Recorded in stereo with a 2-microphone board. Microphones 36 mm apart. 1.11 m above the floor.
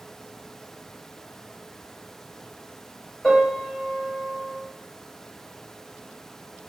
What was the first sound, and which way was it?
A piano, 15° left (ahead or behind).